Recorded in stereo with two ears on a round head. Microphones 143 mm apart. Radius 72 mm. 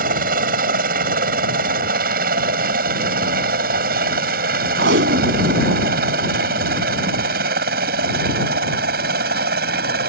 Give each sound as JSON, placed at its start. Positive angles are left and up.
{"t": 0.0, "sound": "a helicopter", "side_deg": -60}
{"t": 4.8, "sound": "tape being pulled", "side_deg": -80}